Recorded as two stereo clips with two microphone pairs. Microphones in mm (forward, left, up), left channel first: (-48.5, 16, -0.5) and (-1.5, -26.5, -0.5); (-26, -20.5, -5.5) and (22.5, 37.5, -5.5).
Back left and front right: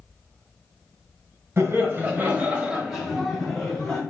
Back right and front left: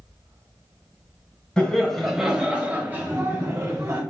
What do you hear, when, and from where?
1.6 s laughter: 55° right, 1.2 m; by 4.0 s 65° left, 1.3 m